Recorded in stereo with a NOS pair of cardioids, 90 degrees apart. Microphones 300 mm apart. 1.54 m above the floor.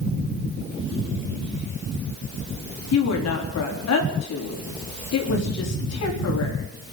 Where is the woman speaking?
60° left, 4 m.